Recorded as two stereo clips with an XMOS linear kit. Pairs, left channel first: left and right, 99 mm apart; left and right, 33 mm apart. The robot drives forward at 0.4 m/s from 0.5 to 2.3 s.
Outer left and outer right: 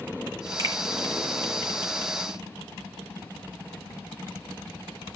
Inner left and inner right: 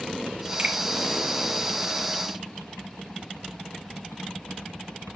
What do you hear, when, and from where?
0.6 s a finger snap: 35° right (ahead or behind), 2 m